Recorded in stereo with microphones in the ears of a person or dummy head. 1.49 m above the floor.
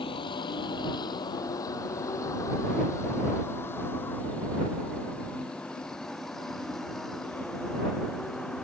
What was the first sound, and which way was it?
A vehicle, 25° left (ahead or behind).